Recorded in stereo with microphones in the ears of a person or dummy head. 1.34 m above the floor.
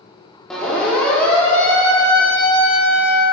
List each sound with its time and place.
0.5 s a siren: centre (ahead or behind), 5 m; by 3.2 s 15° left (ahead or behind), 6 m